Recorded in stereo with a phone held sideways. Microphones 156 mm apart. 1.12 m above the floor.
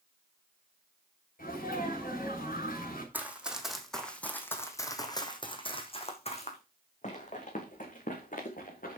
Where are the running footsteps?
10° right (ahead or behind), 2.5 m; by 9.0 s 65° left (ahead or behind), 4.5 m.